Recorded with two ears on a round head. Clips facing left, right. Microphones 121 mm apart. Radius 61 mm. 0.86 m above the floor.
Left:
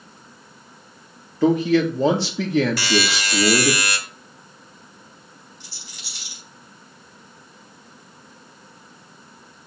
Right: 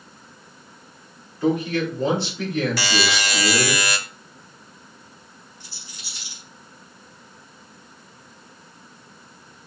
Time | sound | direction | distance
1.4 | a man speaking | 60° left (ahead or behind) | 1.9 m
2.8 | a buzzer | 65° right (ahead or behind) | 1.3 m
5.6 | a rattle | 55° left (ahead or behind) | 5 m